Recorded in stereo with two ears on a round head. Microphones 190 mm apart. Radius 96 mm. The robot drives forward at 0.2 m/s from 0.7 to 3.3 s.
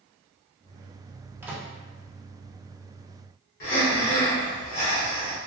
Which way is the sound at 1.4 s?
10° right (ahead or behind).